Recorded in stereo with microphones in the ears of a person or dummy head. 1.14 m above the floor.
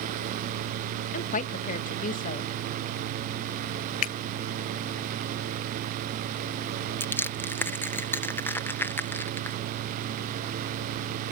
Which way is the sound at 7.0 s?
10° left (ahead or behind).